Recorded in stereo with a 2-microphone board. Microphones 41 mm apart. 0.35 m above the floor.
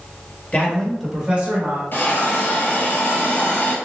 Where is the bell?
No bell in this recording.